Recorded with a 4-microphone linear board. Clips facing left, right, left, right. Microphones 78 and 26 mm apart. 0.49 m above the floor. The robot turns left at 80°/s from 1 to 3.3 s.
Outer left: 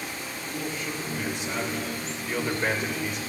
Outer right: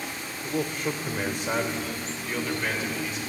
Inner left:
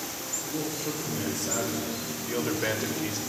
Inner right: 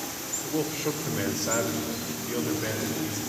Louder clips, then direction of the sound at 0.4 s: Outer right 5 dB, inner right 5 dB; 85° right.